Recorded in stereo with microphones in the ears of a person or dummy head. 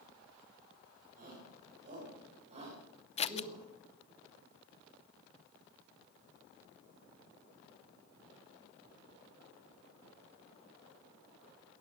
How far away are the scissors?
About 0.7 m.